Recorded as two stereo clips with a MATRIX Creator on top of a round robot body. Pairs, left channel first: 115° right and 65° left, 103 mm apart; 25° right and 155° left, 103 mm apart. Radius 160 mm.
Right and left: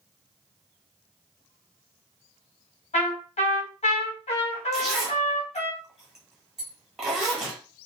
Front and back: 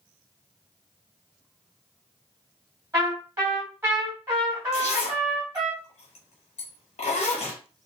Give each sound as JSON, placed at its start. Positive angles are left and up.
{"t": 2.9, "sound": "a trumpet", "azimuth_deg": -135, "distance_m": 1.5}
{"t": 4.7, "sound": "a zipper", "azimuth_deg": -20, "distance_m": 1.2}